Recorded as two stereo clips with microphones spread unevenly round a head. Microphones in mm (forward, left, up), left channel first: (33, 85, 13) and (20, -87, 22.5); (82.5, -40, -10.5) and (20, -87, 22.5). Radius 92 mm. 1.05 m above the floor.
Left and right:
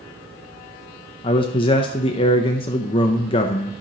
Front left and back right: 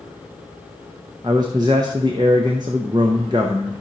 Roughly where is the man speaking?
Behind left.